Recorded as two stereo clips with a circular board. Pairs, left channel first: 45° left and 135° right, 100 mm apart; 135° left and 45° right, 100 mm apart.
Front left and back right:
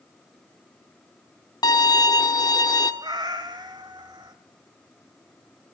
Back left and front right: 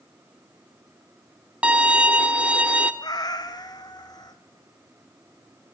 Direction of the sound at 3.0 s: Straight behind.